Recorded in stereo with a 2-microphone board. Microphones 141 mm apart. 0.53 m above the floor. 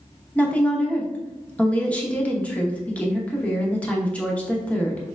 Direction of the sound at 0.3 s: 10° left (ahead or behind).